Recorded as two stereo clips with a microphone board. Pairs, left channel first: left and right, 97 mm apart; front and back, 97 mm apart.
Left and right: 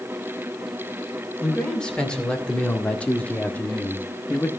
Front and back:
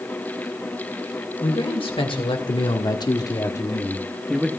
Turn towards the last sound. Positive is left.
turn(degrees=115)